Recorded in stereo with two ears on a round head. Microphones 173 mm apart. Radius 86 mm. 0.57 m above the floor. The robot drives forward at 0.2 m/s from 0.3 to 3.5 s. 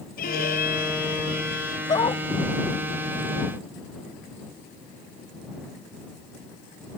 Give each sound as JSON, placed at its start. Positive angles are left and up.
{"t": 0.2, "sound": "a violin", "side_deg": 50}
{"t": 1.9, "sound": "a dog barking", "side_deg": 20}